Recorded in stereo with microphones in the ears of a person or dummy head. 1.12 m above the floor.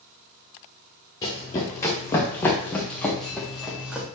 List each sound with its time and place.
1.2 s running footsteps: 20° left (ahead or behind), 3.5 m; by 4.0 s 10° right (ahead or behind), 2.5 m